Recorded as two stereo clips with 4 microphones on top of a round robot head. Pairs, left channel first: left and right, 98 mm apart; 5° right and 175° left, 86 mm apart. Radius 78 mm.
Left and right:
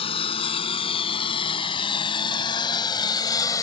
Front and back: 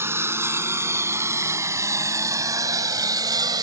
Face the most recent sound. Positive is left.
turn(degrees=140)